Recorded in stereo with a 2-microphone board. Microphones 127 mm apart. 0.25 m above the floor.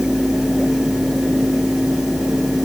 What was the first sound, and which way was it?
Only background noise.